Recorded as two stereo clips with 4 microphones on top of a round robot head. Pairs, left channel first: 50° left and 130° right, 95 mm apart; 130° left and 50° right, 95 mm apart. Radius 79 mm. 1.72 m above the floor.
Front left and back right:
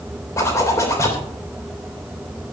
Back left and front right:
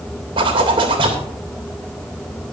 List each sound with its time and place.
0.4 s a zipper: 10° right, 3 m